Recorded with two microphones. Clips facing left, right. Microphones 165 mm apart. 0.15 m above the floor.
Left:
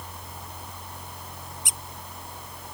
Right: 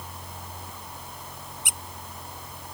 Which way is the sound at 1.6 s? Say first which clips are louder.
Even; 65° right (ahead or behind).